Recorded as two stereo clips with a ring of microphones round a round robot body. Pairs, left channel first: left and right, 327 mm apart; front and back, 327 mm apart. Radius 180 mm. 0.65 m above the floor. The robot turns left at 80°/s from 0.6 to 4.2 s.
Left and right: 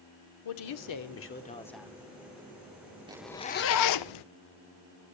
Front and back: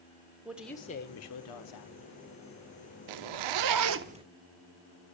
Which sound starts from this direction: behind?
A zipper, at 3.1 s.